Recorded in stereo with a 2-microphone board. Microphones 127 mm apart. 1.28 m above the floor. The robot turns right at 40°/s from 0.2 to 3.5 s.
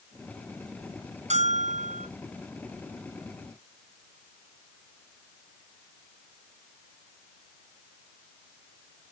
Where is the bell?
115° right, 1.3 m; by 2.1 s 85° right, 1.3 m.